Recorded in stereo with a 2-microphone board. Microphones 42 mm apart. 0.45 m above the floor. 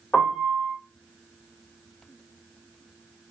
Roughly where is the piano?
Left.